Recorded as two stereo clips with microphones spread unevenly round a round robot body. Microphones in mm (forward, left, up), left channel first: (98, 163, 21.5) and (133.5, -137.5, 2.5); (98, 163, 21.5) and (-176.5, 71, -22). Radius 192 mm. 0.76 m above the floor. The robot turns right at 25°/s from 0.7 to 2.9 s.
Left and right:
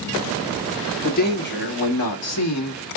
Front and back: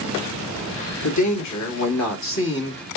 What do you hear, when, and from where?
1.0 s a man speaking: 30° left, 1.8 m; by 2.8 s 75° left, 1.8 m